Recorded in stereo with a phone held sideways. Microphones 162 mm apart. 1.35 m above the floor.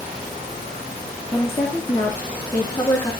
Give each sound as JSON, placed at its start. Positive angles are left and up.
{"t": 1.3, "sound": "a woman speaking", "side_deg": 20, "distance_m": 2.5}